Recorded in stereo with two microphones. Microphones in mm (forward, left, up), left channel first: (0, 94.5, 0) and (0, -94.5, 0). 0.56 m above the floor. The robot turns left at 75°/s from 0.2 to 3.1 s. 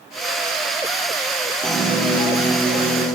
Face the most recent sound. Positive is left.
turn(degrees=-100)